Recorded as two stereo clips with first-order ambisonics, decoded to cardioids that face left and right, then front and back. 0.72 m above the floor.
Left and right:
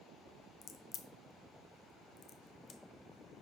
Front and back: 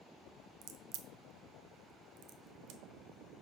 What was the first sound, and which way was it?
A crack, 150° left.